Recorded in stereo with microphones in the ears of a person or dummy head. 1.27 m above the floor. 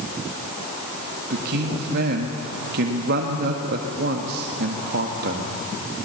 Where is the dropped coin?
No dropped coin in this recording.